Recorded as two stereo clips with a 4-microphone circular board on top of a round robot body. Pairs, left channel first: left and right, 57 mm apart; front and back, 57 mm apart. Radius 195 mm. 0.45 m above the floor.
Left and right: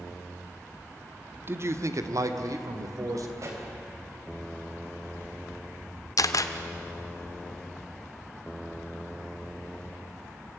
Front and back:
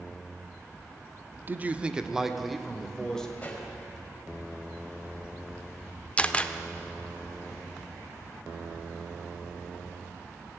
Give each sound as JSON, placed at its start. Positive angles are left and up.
{"t": 1.5, "sound": "a man speaking", "azimuth_deg": -130, "distance_m": 1.3}
{"t": 3.4, "sound": "a pop", "azimuth_deg": -65, "distance_m": 4.0}
{"t": 6.2, "sound": "a camera shutter", "azimuth_deg": 70, "distance_m": 1.0}